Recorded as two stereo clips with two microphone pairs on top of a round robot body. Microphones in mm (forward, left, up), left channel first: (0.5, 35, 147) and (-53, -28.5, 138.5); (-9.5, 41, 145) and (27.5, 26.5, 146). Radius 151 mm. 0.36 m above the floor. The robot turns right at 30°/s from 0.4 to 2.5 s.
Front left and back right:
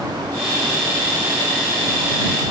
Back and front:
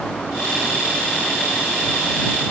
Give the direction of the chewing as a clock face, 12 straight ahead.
No chewing in this recording.